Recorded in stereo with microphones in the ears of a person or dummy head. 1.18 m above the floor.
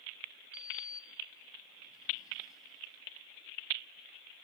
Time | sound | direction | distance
0.5 | a sliding door | 20° left (ahead or behind) | ?